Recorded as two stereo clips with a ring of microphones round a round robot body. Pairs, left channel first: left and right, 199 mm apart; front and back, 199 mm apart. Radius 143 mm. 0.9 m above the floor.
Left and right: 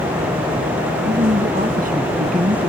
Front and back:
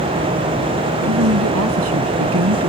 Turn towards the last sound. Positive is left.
turn(degrees=-155)